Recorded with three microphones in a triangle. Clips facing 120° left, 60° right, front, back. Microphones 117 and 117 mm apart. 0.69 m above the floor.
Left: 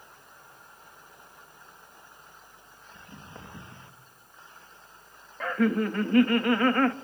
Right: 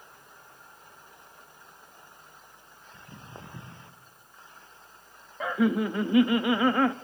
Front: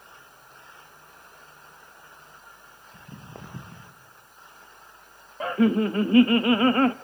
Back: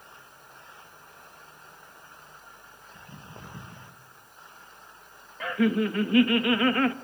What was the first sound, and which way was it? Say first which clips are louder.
Footsteps: even, front 3 dB; 10° left.